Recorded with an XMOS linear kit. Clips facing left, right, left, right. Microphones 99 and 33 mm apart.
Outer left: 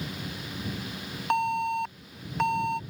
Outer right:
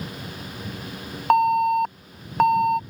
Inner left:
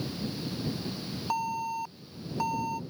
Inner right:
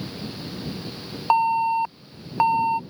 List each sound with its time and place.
1.3 s an alarm: 50° right (ahead or behind)